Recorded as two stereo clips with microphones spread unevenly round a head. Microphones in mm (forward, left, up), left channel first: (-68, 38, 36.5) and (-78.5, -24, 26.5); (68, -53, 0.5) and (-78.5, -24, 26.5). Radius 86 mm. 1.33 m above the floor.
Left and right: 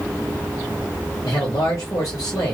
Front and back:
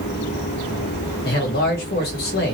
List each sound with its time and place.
1.2 s a man speaking: 25° left, 1.7 m